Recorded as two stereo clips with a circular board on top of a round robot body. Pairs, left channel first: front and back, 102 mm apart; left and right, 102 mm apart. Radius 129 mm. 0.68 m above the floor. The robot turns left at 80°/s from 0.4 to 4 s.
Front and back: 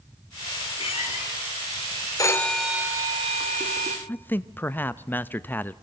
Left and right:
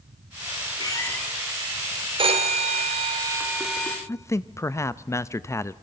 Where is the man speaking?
55° left, 0.7 m.